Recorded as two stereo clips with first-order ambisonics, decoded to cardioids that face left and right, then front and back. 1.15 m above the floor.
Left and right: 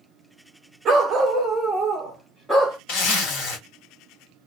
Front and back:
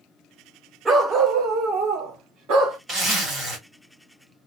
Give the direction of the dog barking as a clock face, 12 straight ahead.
4 o'clock.